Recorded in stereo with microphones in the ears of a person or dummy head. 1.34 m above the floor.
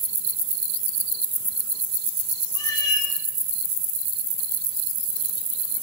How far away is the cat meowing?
About 1.7 m.